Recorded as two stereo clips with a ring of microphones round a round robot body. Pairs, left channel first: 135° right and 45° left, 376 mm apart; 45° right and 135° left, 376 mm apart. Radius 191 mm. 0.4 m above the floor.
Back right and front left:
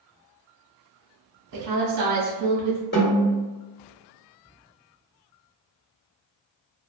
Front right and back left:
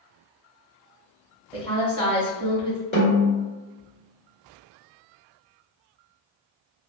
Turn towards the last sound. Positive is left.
turn(degrees=-90)